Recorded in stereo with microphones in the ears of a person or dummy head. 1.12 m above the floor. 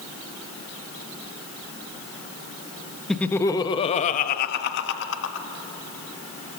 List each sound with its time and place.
3.1 s laughter: 5° left (ahead or behind), 1.0 m; by 5.5 s 80° left, 1.5 m